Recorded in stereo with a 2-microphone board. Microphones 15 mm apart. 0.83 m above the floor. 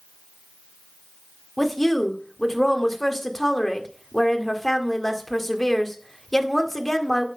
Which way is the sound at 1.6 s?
25° left (ahead or behind).